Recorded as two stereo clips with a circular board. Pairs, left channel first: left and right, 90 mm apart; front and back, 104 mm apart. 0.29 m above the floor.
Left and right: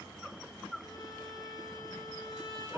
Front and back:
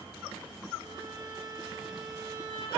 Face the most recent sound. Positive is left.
turn(degrees=130)